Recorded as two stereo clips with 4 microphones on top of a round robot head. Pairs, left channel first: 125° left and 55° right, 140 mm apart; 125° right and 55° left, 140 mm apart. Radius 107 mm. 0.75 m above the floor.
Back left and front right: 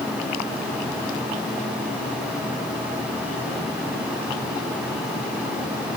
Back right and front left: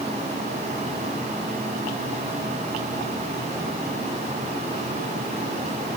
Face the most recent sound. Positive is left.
No sound to turn to.